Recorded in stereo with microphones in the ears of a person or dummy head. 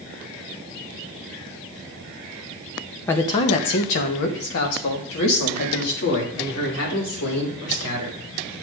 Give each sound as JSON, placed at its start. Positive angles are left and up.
{"t": 3.1, "sound": "a man speaking", "side_deg": 15, "distance_m": 0.5}